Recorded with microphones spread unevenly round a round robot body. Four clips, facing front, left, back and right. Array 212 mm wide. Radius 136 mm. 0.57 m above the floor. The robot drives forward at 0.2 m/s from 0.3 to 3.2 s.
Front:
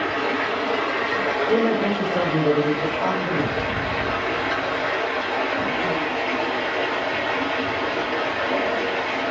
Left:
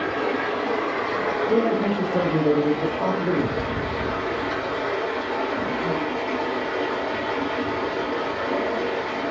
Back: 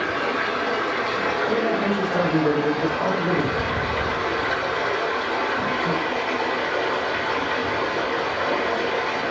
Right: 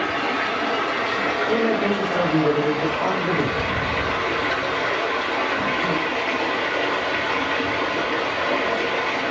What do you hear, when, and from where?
0.0 s running water: 115° left, 1.1 m; by 9.3 s 140° left, 1.5 m
1.5 s a man speaking: 80° left, 0.8 m; by 3.6 s 130° left, 0.9 m